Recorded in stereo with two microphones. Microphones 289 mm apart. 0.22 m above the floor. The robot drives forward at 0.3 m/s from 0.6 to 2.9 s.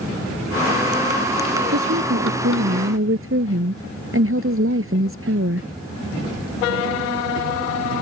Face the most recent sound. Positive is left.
turn(degrees=-50)  # may be behind; listen again after turning